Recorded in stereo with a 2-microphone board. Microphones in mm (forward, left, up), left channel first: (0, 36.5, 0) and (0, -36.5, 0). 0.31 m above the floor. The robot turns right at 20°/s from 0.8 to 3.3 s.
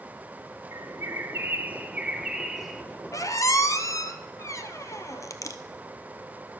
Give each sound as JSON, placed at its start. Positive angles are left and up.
{"t": 0.7, "sound": "a bird", "azimuth_deg": -40, "distance_m": 0.5}
{"t": 3.1, "sound": "a squeak", "side_deg": 45, "distance_m": 0.7}